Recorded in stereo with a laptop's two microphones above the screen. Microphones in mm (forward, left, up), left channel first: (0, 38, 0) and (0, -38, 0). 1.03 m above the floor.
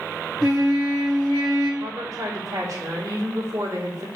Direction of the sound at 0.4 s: Centre (ahead or behind).